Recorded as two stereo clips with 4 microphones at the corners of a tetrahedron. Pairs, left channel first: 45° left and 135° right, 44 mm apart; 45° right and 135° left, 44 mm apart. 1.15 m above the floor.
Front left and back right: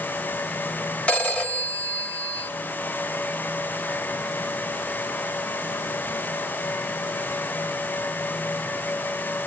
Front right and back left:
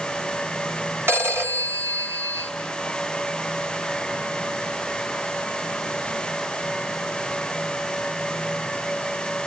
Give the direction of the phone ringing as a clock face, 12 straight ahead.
8 o'clock.